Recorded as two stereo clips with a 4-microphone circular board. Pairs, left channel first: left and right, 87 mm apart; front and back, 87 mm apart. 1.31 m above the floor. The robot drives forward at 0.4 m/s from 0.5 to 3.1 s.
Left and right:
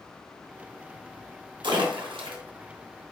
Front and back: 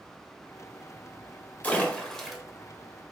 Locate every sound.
1.6 s a splash: 70° right, 0.8 m; by 2.4 s 90° right, 0.8 m